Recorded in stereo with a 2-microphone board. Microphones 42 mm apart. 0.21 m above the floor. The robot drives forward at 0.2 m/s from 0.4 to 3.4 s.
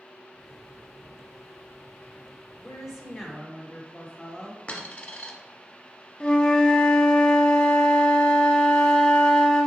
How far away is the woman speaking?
About 1.5 m.